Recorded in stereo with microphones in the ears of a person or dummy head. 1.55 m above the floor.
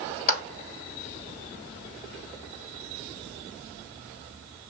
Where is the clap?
55° left (ahead or behind), 2 m.